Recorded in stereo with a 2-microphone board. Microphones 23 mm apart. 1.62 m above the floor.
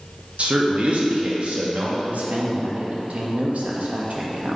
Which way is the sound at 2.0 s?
80° right.